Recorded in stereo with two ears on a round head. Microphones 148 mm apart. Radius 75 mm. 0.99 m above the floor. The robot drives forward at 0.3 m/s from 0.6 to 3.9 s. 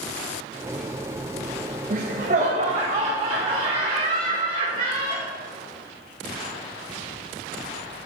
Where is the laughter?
50° right (ahead or behind), 0.9 m; by 5.3 s 35° right (ahead or behind), 1.2 m.